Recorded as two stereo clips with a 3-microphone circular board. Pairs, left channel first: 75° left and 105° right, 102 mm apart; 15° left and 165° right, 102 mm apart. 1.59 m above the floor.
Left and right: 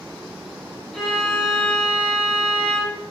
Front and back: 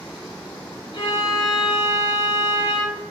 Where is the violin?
5° right, 3 m.